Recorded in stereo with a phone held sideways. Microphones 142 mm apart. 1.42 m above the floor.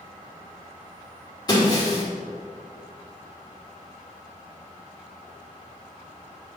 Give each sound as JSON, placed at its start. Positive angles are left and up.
{"t": 1.5, "sound": "breaking glass", "side_deg": 30, "distance_m": 2.0}